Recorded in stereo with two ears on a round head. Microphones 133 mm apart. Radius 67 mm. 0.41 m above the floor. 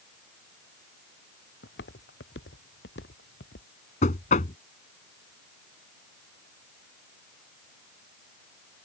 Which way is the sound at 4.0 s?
50° left (ahead or behind).